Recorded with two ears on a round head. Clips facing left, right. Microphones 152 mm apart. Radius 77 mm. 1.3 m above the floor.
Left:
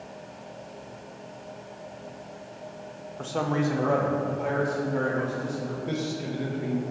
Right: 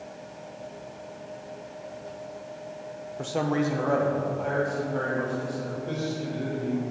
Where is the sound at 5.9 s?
15° left (ahead or behind), 1.5 m.